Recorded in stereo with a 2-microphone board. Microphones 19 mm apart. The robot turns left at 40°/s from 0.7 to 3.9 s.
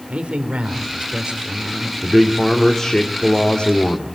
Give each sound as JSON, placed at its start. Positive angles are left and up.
{"t": 0.1, "sound": "a man speaking", "azimuth_deg": -95, "distance_m": 3.5}
{"t": 2.0, "sound": "a man speaking", "azimuth_deg": -165, "distance_m": 2.0}